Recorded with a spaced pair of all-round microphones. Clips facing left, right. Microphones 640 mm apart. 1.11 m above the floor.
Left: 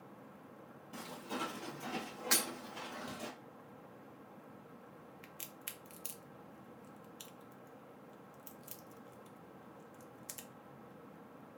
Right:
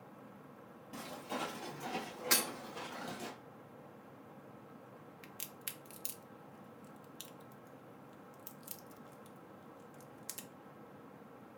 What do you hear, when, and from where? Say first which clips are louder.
0.9 s footsteps: even; 10° right (ahead or behind), 1.2 m; by 3.3 s 25° left (ahead or behind), 1.3 m
2.3 s breaking glass: right 1 dB; 60° right (ahead or behind), 1.2 m
5.2 s a crack: right 1 dB; 65° right (ahead or behind), 0.5 m